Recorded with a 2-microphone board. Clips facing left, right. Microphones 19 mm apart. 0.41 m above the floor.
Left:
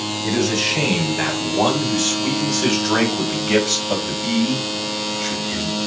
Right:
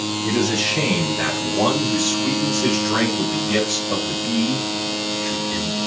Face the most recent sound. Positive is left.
turn(degrees=65)  # may be behind; listen again after turning